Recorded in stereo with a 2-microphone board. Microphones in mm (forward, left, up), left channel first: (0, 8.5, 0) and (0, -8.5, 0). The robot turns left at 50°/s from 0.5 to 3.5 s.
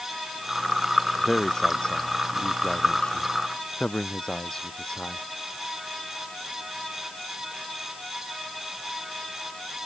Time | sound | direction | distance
1.2 | a man speaking | 10° left (ahead or behind) | ?